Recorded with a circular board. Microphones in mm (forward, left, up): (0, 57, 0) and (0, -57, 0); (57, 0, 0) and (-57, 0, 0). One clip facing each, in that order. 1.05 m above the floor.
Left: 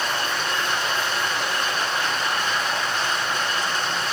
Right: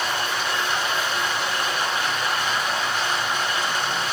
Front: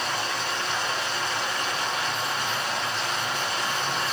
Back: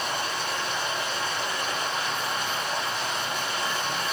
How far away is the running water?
About 4 m.